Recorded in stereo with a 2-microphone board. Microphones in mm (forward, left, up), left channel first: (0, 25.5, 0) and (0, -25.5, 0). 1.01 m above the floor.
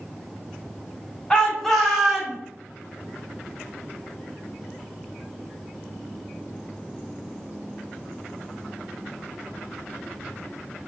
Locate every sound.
1.3 s a shout: 15° left (ahead or behind), 1.0 m; by 2.4 s 5° right (ahead or behind), 1.3 m